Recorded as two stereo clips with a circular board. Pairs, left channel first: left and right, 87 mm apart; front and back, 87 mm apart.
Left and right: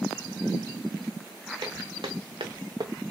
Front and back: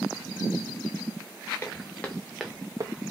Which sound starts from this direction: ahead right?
Footsteps, at 1.6 s.